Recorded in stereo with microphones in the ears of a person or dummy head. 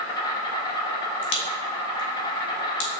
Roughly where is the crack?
Left.